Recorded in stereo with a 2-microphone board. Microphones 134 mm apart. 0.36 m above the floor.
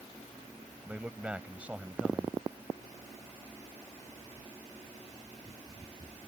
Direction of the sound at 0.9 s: 10° right (ahead or behind).